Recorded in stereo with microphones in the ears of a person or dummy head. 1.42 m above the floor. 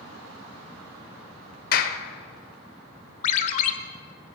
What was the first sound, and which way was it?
A clap, 55° left (ahead or behind).